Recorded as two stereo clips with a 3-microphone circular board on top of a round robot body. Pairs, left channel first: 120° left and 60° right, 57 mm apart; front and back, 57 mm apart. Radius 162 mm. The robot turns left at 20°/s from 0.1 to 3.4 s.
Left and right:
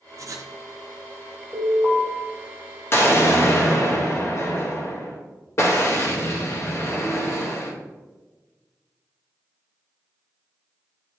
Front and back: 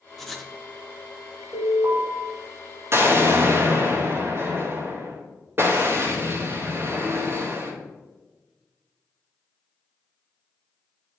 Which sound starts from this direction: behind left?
An explosion, at 2.9 s.